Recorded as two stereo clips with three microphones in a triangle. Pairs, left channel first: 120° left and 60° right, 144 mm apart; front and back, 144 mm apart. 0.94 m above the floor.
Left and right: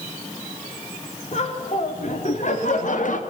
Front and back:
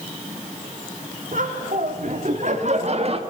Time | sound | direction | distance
1.3 | laughter | 160° left | 3.5 m